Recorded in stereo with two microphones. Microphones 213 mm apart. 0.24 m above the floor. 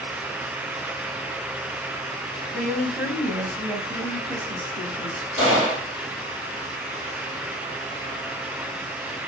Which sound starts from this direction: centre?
A woman speaking, at 2.5 s.